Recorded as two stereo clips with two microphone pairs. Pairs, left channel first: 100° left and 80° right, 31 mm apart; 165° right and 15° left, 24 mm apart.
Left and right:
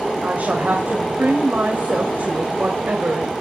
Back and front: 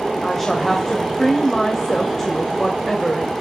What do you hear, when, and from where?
0.2 s a woman speaking: 90° right, 2.5 m